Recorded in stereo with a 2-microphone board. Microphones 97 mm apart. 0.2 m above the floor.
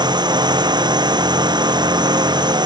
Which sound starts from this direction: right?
A drone, at 0.0 s.